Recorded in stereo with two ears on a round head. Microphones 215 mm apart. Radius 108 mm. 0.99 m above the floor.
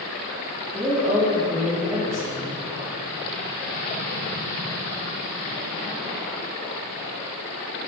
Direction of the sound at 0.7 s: 10° right (ahead or behind).